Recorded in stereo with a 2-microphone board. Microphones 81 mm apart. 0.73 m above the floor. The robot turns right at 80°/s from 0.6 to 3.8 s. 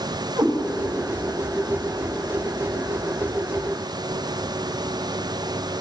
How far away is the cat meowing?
About 1.9 m.